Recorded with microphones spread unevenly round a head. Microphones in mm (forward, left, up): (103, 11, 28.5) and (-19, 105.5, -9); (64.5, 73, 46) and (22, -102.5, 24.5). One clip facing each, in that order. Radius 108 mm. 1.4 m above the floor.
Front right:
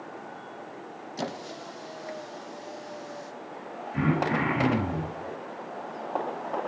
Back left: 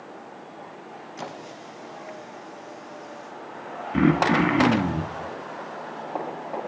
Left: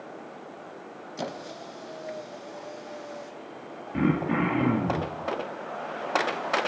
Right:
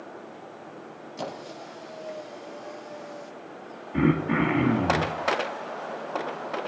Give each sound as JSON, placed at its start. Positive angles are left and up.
{"t": 1.2, "sound": "a squeak", "azimuth_deg": 0, "distance_m": 0.9}
{"t": 3.9, "sound": "throat clearing", "azimuth_deg": 165, "distance_m": 1.5}